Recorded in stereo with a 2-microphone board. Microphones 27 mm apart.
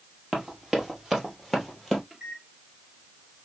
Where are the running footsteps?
25° right (ahead or behind), 2 m; by 2.0 s 5° right (ahead or behind), 2.5 m.